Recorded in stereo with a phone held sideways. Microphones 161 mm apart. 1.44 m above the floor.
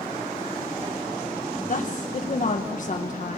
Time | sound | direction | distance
1.7 | a woman speaking | 55° left (ahead or behind) | 1.6 m